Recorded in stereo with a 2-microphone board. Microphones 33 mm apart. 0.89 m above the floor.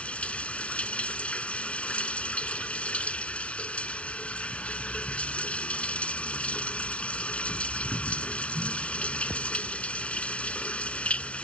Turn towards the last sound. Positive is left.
turn(degrees=40)  # may be behind; listen again after turning